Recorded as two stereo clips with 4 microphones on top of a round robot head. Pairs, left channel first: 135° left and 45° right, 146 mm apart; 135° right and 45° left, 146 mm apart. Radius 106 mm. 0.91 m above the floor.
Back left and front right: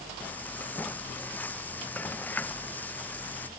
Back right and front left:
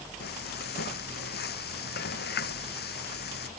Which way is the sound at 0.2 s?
145° right.